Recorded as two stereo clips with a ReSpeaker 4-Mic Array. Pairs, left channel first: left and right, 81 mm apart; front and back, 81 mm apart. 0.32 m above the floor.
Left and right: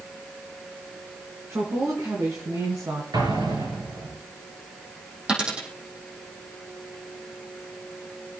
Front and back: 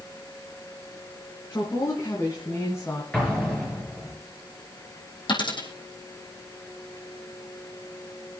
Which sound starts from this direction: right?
An explosion, at 3.1 s.